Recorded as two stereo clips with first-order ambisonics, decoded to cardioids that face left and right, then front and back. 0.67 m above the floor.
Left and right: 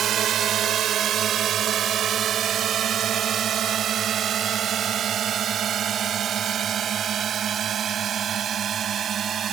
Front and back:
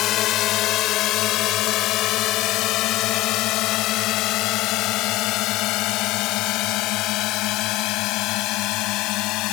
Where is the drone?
40° right; by 9.5 s 30° right.